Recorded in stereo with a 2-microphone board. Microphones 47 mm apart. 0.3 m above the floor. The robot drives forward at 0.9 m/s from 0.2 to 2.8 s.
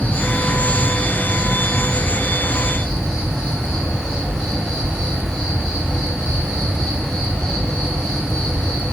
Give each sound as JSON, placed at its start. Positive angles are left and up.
{"t": 0.0, "sound": "an insect", "side_deg": 35, "distance_m": 0.8}